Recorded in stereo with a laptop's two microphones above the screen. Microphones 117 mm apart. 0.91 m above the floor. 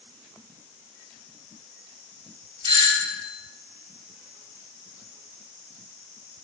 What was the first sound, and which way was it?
A doorbell, 40° right (ahead or behind).